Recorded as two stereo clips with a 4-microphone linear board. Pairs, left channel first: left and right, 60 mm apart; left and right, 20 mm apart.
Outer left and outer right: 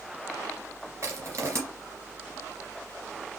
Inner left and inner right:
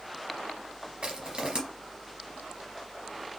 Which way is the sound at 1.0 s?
55° right (ahead or behind).